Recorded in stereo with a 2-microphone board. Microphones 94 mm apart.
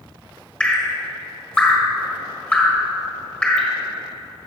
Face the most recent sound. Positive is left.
turn(degrees=10)  # may be behind; listen again after turning